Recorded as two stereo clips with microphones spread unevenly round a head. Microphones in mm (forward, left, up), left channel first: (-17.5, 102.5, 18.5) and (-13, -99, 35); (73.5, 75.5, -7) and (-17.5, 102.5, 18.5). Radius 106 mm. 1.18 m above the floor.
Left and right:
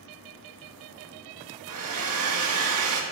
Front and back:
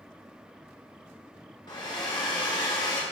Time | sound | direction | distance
1.7 | a hair dryer | 80° right | 2 m